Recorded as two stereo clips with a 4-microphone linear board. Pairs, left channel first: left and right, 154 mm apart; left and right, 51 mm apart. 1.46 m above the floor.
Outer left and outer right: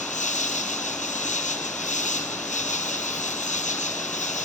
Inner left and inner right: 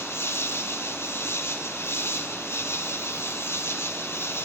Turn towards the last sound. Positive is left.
turn(degrees=55)  # may be behind; listen again after turning